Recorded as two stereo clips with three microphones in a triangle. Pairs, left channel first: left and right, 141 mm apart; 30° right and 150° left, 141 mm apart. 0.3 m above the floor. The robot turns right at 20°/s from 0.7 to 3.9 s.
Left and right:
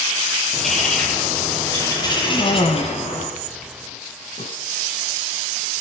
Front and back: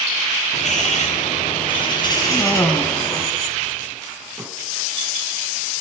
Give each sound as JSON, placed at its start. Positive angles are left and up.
{"t": 0.5, "sound": "a bird", "azimuth_deg": 0, "distance_m": 10.0}
{"t": 2.2, "sound": "a cough", "azimuth_deg": 40, "distance_m": 2.0}